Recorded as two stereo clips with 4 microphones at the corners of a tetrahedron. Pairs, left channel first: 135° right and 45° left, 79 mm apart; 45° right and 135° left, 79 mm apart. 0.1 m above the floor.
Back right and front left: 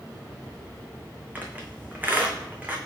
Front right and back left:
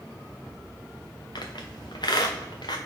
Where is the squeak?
25° right, 1.2 m.